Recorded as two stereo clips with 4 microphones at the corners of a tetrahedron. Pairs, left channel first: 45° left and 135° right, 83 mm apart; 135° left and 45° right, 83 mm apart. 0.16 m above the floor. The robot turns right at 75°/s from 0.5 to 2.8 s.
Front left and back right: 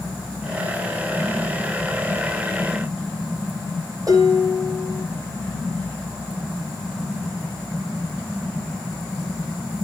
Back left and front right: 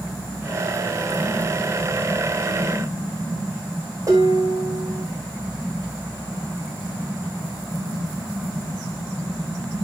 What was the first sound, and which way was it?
Dishes clattering, 90° right.